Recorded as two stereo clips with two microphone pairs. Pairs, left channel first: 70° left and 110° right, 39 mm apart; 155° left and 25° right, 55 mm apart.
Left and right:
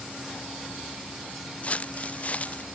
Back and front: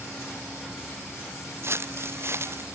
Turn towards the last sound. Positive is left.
turn(degrees=15)